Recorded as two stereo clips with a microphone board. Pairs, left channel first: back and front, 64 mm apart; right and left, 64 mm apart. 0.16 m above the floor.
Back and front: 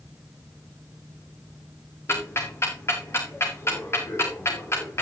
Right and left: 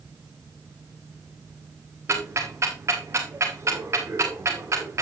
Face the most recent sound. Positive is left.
turn(degrees=135)